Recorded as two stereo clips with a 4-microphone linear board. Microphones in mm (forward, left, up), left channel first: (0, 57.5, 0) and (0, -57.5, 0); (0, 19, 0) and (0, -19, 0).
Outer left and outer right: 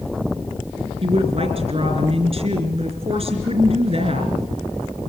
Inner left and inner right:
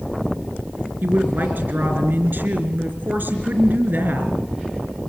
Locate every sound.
1.0 s a woman speaking: 60° right (ahead or behind), 3.5 m